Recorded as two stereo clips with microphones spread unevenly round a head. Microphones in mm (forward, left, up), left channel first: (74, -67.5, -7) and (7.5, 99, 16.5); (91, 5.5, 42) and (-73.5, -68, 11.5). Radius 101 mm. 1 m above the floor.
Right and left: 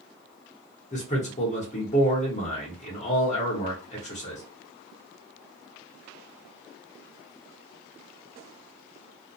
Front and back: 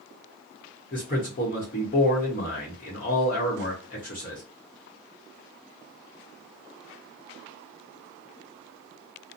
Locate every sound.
0.9 s a man speaking: 25° right, 1.0 m